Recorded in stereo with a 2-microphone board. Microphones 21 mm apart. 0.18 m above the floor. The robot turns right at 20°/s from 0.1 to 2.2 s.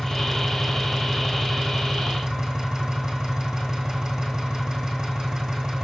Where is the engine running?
155° left, 3.5 m; by 5.8 s 160° right, 3.5 m.